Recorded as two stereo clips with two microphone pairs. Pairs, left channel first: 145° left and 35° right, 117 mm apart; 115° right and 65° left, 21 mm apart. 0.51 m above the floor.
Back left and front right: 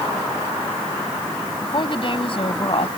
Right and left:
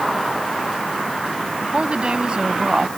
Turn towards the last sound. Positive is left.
turn(degrees=115)